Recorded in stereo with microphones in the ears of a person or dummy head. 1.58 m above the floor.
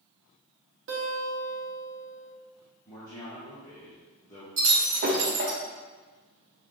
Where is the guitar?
55° right (ahead or behind), 1.5 m.